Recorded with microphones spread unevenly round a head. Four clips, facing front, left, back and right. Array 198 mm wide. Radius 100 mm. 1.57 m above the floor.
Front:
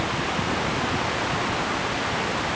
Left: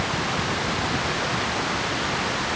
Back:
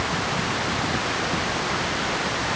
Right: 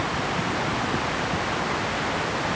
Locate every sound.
Only background noise.